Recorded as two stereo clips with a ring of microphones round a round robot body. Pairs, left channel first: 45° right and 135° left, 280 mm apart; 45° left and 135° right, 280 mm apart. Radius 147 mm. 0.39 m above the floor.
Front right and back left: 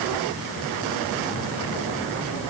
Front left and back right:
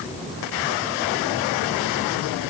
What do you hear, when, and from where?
Only background noise.